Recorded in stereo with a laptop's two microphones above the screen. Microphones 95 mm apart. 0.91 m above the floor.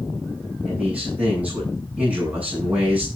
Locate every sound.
0.7 s a man speaking: 15° right (ahead or behind), 7.5 m